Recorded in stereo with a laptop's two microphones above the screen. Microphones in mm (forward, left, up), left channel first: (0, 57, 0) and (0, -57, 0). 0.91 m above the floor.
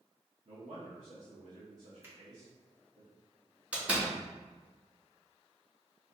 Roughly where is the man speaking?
Right.